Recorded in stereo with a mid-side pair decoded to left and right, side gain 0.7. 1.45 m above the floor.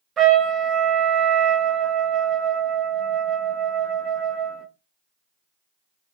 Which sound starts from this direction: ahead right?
A trumpet, at 0.2 s.